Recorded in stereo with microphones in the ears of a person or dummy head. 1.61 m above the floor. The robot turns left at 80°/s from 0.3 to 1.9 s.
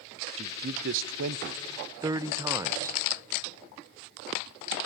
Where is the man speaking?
35° right (ahead or behind), 0.6 m; by 3.0 s 15° right (ahead or behind), 0.6 m.